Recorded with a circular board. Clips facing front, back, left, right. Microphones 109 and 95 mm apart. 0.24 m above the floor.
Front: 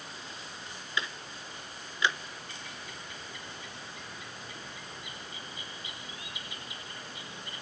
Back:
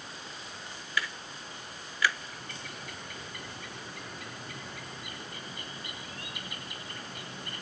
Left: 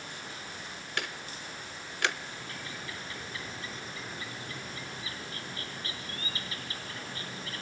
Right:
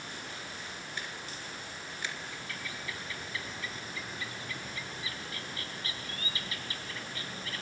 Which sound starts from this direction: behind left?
A bird, at 2.3 s.